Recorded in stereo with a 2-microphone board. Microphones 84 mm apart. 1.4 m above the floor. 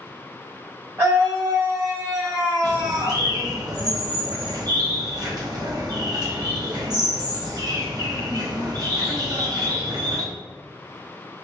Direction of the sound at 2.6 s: 55° right (ahead or behind).